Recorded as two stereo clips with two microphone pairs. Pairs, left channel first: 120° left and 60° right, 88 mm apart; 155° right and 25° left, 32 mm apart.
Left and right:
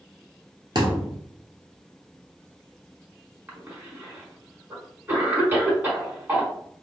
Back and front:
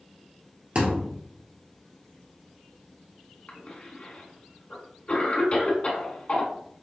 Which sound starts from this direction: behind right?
A cough, at 3.5 s.